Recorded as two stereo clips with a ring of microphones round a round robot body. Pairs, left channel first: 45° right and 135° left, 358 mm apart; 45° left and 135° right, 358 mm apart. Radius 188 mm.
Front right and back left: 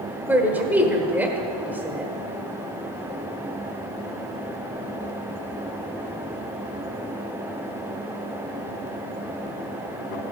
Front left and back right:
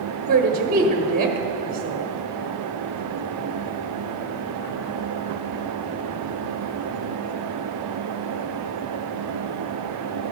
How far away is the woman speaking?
About 1.2 m.